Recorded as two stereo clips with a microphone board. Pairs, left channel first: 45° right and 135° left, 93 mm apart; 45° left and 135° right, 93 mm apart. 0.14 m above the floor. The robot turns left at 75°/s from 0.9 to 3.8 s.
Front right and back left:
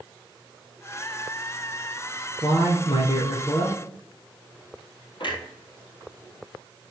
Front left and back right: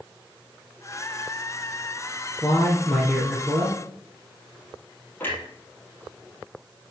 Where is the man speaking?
Straight ahead, 2.5 m; by 3.8 s 100° right, 2.5 m.